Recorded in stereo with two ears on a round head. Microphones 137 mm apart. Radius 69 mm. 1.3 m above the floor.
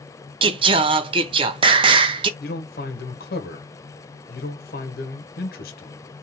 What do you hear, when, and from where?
0.4 s singing: 30° right (ahead or behind), 0.5 m
2.4 s a man speaking: 60° left (ahead or behind), 1.2 m